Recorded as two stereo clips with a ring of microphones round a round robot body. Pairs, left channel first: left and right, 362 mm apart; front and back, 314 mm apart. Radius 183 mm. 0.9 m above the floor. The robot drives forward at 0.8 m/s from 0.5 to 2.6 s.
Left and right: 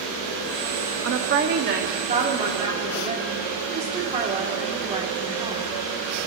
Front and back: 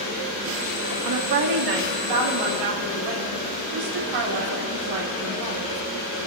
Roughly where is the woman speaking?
Behind right.